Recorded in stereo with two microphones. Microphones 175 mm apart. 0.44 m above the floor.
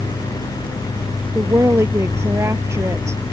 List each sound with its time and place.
1.4 s a woman speaking: 15° right (ahead or behind)